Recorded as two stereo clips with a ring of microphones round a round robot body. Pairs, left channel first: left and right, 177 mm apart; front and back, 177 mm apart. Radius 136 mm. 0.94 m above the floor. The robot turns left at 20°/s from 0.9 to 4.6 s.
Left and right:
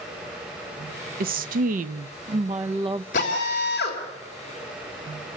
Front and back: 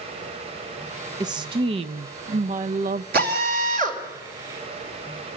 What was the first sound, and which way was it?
A woman speaking, 115° right.